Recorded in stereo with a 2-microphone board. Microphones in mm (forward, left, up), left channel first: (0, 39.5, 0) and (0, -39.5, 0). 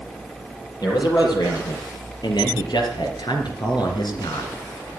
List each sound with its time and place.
0.8 s a man speaking: 60° left (ahead or behind), 5.5 m; by 4.5 s 65° left (ahead or behind), 2.5 m